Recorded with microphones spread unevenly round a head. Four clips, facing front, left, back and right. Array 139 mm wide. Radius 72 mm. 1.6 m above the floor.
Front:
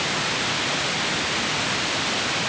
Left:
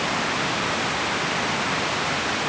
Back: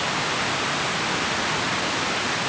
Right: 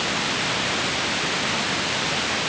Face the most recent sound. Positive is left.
No sound to turn to.